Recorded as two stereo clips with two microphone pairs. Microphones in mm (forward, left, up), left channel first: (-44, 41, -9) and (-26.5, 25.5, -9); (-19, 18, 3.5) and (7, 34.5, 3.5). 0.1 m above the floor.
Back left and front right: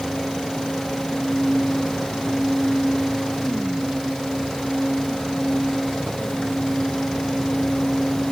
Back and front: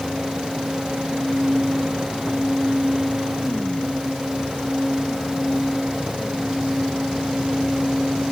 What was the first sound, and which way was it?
Only background noise.